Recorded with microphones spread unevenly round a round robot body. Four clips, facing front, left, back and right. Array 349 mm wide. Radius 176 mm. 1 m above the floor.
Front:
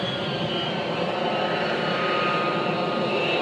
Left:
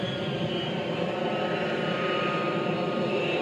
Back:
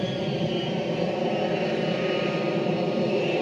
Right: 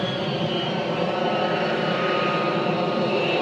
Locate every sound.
0.0 s an aircraft: 130° right